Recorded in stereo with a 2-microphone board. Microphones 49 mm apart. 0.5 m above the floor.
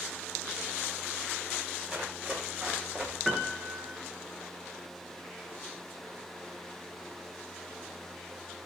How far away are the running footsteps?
About 8.5 m.